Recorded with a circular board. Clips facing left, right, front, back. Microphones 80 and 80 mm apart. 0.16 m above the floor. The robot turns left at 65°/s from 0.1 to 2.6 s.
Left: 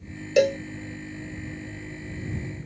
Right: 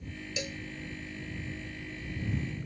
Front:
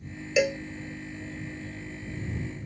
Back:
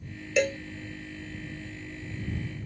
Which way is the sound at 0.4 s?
85° left.